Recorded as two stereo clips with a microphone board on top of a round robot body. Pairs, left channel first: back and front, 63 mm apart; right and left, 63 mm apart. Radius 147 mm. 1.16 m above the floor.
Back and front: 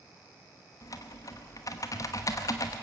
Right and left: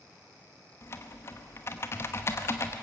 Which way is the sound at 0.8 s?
140° right.